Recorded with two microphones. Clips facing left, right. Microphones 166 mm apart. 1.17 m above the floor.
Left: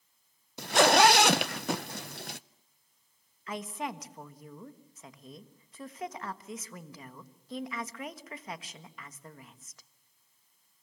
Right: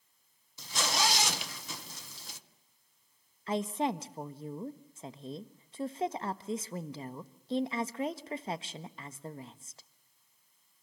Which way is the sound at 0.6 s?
70° left (ahead or behind).